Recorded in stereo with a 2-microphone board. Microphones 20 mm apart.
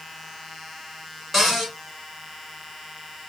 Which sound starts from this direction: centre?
A cupboard door, at 1.3 s.